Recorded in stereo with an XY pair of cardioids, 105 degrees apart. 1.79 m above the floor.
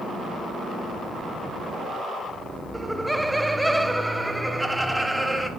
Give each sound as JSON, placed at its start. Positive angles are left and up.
{"t": 2.7, "sound": "laughter", "azimuth_deg": -5, "distance_m": 0.5}